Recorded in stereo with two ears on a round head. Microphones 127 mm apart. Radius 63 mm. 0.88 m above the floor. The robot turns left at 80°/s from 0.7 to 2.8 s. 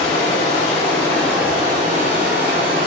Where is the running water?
50° left, 2.0 m; by 2.9 s 120° right, 2.0 m.